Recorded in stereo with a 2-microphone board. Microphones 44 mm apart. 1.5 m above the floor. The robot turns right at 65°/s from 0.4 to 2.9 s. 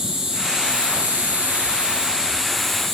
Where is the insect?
155° right, 1.2 m; by 3.0 s 10° left, 1.2 m.